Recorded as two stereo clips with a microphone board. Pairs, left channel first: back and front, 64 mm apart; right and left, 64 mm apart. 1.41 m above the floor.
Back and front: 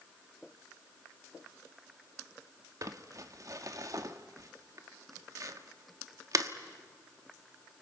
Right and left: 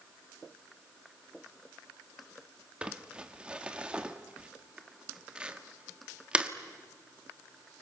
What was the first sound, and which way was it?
Crumpling, 20° left.